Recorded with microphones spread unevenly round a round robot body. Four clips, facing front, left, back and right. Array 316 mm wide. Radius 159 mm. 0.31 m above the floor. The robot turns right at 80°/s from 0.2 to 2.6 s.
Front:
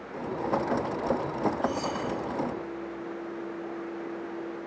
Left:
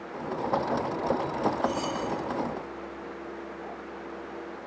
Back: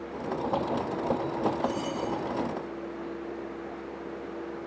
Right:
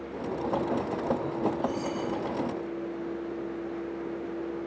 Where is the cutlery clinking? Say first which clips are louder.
Left 1 dB, front 1 dB; 40° left, 7 m; by 2.0 s 70° left, 7 m.